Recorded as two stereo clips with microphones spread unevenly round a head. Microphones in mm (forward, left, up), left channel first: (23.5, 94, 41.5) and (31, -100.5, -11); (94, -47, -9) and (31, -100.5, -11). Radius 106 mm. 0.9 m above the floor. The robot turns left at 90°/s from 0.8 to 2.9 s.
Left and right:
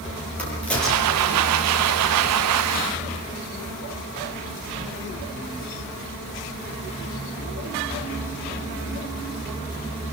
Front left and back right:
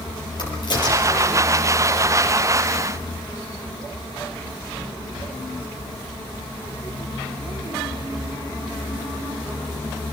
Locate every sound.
0.4 s a crack: 10° left, 8.5 m; by 1.4 s 50° right, 8.5 m